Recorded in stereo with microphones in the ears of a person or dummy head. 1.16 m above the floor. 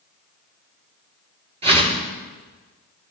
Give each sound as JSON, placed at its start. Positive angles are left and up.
{"t": 1.6, "sound": "a whoosh", "side_deg": -35, "distance_m": 6.5}